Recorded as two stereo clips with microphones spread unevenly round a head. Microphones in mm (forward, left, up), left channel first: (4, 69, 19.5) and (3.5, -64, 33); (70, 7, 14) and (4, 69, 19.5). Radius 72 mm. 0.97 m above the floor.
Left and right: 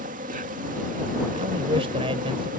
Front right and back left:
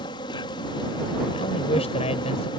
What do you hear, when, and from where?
0.0 s an insect: 75° right
1.3 s a man speaking: 40° right